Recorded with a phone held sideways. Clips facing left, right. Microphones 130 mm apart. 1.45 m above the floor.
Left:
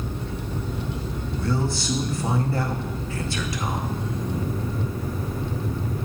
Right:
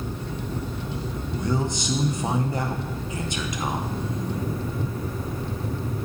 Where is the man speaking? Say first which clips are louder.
Even; 20° right (ahead or behind), 0.7 m.